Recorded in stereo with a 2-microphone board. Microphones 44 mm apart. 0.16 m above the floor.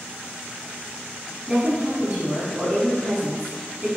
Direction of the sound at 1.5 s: 20° right (ahead or behind).